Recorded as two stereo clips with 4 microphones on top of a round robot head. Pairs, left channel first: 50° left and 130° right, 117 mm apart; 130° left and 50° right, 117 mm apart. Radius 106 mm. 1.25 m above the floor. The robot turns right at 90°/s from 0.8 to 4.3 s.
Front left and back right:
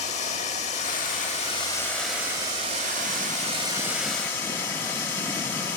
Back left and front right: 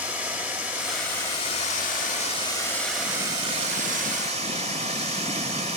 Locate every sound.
0.0 s running water: 25° left, 0.9 m; by 5.8 s 20° right, 0.9 m